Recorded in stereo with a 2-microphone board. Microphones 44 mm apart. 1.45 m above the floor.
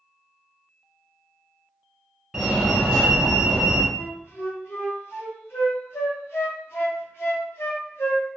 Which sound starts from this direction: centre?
A fire alarm, at 2.3 s.